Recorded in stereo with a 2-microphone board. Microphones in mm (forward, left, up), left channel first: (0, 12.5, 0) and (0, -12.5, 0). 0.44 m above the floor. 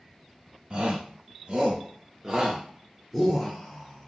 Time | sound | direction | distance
0.7 | a shout | 60° right (ahead or behind) | 1.5 m